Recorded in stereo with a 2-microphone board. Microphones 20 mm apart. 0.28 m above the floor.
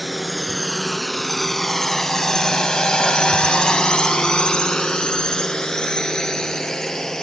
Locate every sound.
0.0 s a drone: centre (ahead or behind); by 7.2 s 30° left (ahead or behind)